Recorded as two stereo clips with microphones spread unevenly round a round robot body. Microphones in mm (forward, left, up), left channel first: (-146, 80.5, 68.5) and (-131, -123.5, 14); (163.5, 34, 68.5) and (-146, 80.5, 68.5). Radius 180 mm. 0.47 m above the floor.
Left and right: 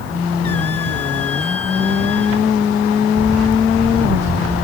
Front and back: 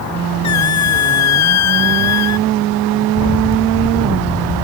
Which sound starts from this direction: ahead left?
A squeak, at 0.4 s.